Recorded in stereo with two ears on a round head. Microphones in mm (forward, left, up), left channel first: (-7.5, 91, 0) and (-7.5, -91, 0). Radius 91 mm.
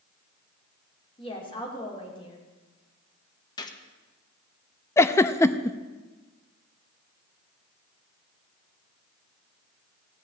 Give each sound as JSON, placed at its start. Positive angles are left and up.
{"t": 1.2, "sound": "a woman speaking", "side_deg": 25, "distance_m": 3.0}
{"t": 3.6, "sound": "a gunshot", "side_deg": 20, "distance_m": 1.1}
{"t": 5.0, "sound": "a giggle", "side_deg": 15, "distance_m": 0.5}